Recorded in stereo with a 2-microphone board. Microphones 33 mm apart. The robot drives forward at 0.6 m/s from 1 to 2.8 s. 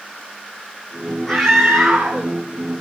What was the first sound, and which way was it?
A scream, 10° left (ahead or behind).